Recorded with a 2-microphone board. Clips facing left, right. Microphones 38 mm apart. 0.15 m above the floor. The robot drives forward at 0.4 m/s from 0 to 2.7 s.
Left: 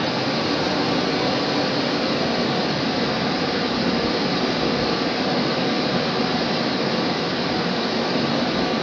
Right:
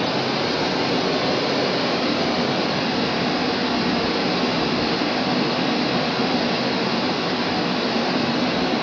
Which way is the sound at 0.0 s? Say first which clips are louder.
Even; 50° right (ahead or behind).